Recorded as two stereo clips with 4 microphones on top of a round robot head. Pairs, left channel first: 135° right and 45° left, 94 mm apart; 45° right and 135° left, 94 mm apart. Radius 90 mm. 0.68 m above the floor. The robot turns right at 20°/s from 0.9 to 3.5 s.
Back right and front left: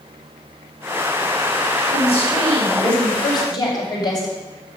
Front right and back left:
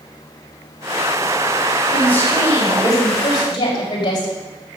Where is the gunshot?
I don't hear a gunshot.